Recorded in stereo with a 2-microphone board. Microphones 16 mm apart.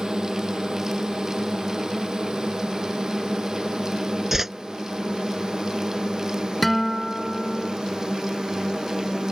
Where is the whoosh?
25° right (ahead or behind).